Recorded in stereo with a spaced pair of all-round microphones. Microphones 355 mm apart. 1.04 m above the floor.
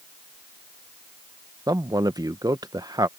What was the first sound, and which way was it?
A man speaking, 10° right (ahead or behind).